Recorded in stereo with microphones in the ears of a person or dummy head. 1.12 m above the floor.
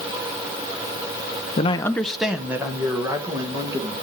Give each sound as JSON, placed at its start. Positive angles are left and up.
{"t": 1.6, "sound": "a man speaking", "side_deg": 25, "distance_m": 0.6}